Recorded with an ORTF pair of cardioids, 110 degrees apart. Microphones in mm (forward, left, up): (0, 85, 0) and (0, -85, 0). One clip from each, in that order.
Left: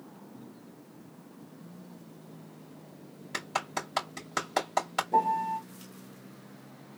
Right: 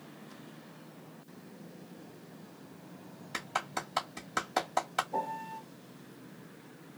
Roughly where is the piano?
Ahead left.